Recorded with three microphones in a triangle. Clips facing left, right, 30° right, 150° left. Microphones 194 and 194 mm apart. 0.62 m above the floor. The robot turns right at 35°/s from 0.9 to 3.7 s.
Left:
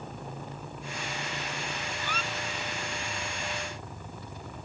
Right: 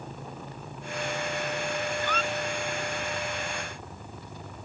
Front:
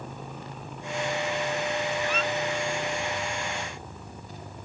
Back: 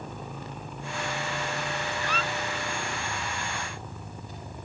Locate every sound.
2.0 s a squeak: 170° left; by 2.3 s straight behind